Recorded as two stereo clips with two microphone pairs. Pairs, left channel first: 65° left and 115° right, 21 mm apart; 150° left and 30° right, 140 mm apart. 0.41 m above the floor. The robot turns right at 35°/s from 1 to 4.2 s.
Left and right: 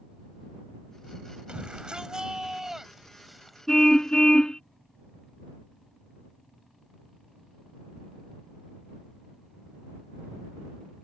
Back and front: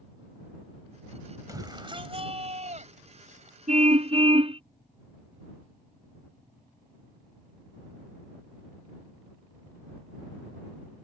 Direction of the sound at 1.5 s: 90° right.